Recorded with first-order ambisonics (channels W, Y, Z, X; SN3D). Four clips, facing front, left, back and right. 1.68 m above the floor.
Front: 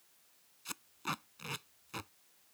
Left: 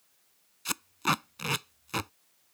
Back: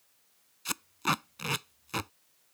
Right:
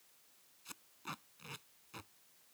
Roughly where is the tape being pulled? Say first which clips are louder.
Left 20 dB, back 10 dB; behind left.